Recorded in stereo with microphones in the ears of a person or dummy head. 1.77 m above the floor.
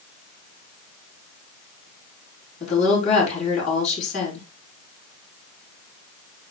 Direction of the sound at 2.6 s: 40° left (ahead or behind).